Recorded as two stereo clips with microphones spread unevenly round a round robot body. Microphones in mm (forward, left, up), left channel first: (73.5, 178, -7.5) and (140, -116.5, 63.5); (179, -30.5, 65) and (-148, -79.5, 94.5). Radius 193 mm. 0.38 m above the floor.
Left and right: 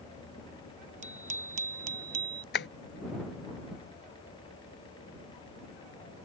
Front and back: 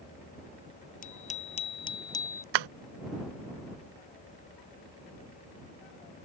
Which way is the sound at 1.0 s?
60° right.